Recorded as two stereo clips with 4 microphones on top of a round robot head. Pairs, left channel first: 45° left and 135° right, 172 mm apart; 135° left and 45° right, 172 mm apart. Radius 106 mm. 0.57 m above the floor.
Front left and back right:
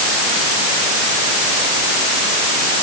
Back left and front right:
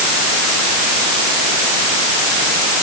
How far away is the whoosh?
I don't hear a whoosh.